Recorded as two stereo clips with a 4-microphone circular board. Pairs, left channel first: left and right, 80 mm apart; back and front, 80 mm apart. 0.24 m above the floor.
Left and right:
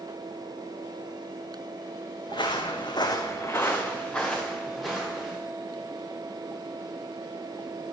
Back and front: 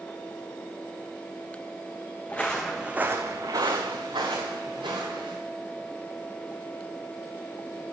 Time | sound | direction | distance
2.3 | footsteps | 110° left | 1.0 m